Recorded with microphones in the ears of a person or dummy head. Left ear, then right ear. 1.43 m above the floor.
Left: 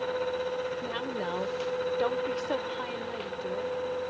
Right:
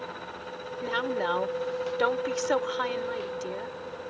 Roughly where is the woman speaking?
Right.